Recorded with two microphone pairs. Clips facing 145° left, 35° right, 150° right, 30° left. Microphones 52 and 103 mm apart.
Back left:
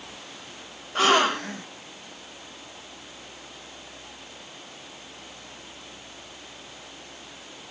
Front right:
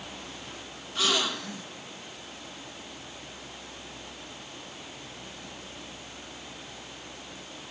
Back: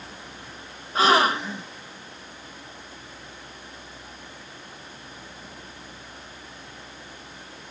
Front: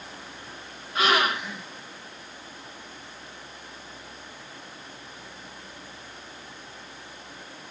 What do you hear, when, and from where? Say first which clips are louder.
0.9 s a gasp: back left 8 dB, back 4 dB; 160° left, 0.6 m